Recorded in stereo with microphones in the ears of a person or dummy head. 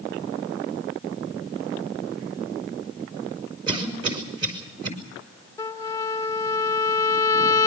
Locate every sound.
3.7 s a cough: 30° right (ahead or behind), 5.5 m
5.6 s a trumpet: 15° left (ahead or behind), 1.6 m